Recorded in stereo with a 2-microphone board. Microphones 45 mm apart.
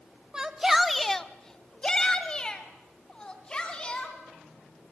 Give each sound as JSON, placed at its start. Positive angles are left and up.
{"t": 0.3, "sound": "a shout", "side_deg": -20, "distance_m": 0.8}